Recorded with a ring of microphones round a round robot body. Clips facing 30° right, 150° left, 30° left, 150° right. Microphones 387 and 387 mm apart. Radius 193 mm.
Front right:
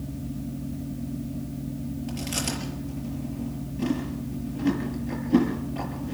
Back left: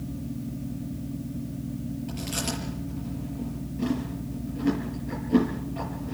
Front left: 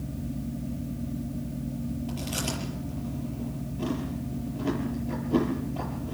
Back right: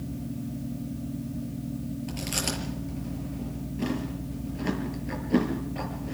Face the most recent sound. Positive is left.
turn(degrees=-115)